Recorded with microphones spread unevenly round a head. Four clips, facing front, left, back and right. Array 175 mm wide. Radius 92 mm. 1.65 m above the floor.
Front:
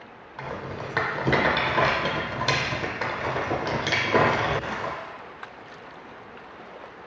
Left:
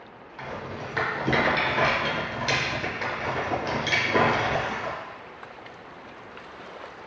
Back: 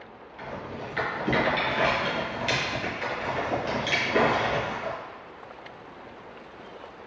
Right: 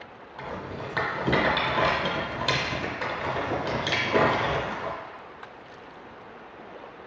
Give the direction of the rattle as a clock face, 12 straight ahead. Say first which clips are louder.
Even, front 3 dB; 12 o'clock.